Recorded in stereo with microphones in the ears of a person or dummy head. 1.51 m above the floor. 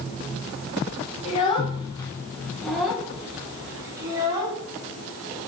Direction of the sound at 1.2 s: 40° left (ahead or behind).